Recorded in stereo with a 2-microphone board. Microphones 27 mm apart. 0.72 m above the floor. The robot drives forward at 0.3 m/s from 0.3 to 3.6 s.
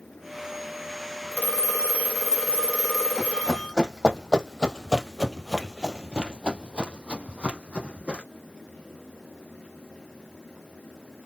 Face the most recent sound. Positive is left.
turn(degrees=-50)  # may be behind; listen again after turning